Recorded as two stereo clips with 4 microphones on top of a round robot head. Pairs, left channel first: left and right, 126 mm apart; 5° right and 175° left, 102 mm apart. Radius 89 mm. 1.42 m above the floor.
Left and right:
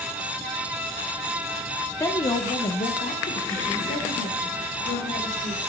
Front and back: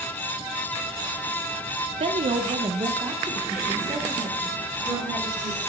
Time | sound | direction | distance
2.0 | a woman speaking | 160° left | 0.9 m